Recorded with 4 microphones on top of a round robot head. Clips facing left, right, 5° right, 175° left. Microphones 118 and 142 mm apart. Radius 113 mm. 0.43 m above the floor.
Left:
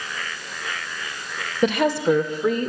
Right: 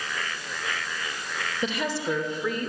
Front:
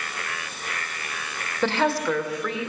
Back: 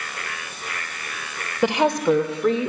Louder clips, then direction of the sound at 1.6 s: Left 10 dB, back 4 dB; 100° left.